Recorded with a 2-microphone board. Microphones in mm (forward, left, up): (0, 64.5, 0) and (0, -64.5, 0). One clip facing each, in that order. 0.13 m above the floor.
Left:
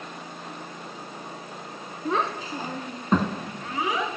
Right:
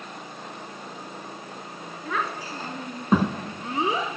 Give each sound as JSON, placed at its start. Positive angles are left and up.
{"t": 2.0, "sound": "a child speaking", "side_deg": 35, "distance_m": 0.8}